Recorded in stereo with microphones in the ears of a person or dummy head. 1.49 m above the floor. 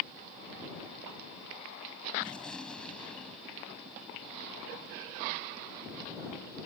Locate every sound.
2.2 s a gunshot: 5° left (ahead or behind)